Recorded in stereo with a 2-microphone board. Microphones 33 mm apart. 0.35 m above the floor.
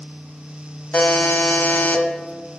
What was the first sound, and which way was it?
A buzzer, 55° left (ahead or behind).